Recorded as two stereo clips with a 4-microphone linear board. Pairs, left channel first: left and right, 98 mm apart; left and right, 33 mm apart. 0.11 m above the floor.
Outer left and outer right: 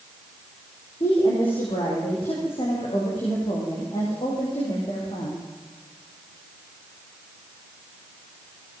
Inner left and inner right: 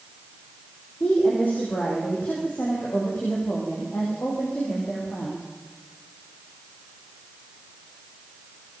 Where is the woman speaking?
65° left (ahead or behind), 8 m.